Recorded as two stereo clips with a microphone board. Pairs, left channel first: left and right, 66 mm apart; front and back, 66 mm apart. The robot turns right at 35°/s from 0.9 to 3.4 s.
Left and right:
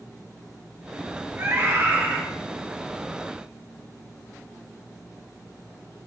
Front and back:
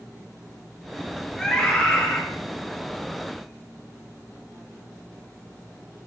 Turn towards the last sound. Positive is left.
turn(degrees=-5)